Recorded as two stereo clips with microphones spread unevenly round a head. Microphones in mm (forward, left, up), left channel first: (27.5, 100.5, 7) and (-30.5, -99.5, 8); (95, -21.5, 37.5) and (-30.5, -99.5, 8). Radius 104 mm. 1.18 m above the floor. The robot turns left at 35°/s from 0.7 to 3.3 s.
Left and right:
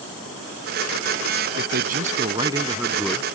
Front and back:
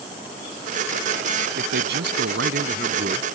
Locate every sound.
1.6 s a man speaking: 145° right; by 3.2 s 155° left